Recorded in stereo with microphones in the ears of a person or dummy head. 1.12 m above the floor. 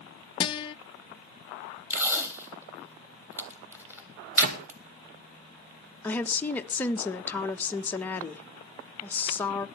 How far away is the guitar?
About 0.6 m.